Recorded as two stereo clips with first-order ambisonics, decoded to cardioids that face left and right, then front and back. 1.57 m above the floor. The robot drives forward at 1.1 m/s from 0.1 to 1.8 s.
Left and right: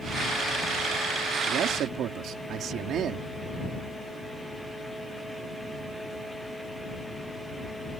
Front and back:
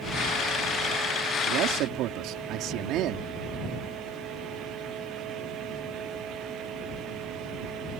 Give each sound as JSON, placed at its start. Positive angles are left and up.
{"t": 1.5, "sound": "a man speaking", "azimuth_deg": -135}